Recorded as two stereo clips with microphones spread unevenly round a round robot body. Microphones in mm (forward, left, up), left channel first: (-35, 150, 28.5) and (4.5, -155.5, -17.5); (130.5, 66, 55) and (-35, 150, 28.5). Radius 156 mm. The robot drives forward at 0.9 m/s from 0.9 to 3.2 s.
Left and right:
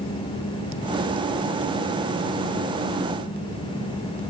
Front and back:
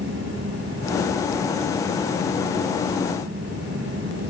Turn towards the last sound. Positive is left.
No sound to turn to.